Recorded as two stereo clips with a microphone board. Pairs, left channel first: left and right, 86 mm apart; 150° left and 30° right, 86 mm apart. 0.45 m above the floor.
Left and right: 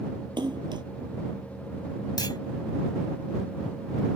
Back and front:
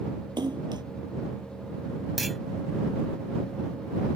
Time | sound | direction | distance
0.4 | a splash | 60° right | ?
2.2 | a clunk | 60° left | ?